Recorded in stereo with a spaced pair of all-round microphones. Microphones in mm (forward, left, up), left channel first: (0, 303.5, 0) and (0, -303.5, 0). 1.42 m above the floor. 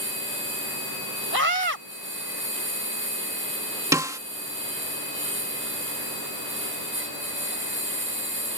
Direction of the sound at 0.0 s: 20° right (ahead or behind).